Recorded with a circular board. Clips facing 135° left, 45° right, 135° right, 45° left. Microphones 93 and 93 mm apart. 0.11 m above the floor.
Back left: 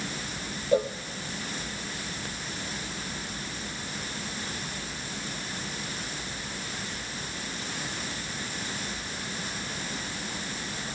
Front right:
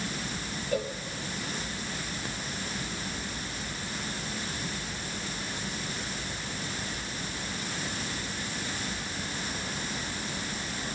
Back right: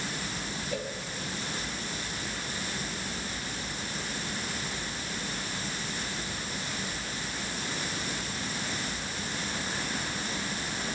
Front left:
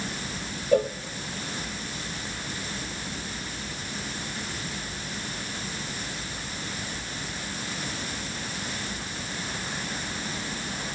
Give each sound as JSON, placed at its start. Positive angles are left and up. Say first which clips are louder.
{"t": 0.7, "sound": "a cowbell", "louder": "back left 7 dB, front left 15 dB", "azimuth_deg": 75, "distance_m": 1.3}